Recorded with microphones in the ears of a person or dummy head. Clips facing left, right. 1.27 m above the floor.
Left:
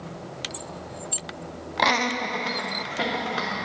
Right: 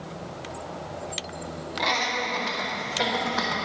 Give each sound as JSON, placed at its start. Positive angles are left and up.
{"t": 1.8, "sound": "laughter", "side_deg": 70, "distance_m": 0.6}